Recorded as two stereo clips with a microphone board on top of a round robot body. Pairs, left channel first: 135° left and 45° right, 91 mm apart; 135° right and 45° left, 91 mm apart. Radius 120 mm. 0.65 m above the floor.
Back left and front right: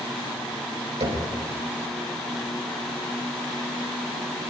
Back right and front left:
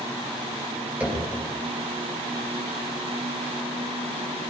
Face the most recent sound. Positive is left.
turn(degrees=-30)